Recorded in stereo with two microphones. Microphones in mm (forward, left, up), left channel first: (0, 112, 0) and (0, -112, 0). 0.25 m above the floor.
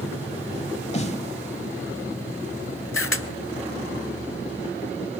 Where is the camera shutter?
70° left (ahead or behind), 0.8 m.